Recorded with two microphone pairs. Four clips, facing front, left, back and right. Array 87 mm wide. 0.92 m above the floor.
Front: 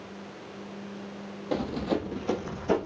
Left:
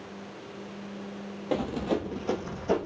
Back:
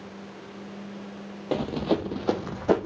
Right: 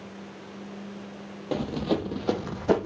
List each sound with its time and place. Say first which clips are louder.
1.5 s running footsteps: right 1 dB, back 3 dB; 160° left, 1.0 m; by 2.9 s 150° right, 1.8 m